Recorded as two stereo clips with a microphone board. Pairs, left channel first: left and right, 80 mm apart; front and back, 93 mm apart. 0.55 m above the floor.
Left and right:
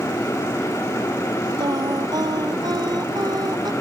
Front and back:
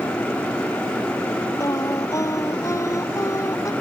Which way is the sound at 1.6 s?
55° right.